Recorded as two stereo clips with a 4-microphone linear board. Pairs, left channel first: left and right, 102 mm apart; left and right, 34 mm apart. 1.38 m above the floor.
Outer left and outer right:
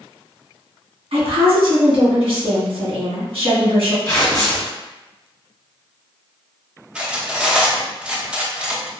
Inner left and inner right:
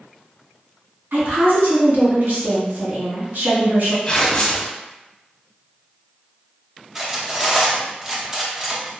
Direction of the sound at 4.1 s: 35° left (ahead or behind).